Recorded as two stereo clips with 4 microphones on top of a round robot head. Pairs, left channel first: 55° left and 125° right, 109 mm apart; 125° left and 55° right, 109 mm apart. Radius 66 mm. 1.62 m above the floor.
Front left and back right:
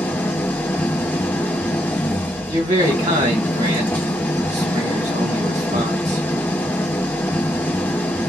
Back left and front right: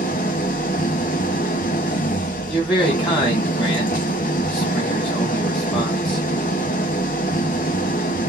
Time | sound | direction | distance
0.0 | an engine running | 130° left | 0.7 m
2.5 | a man speaking | 160° right | 1.2 m